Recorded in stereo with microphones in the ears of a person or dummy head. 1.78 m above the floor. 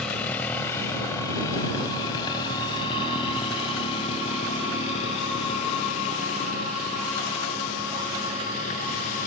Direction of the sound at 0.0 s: 5° left (ahead or behind).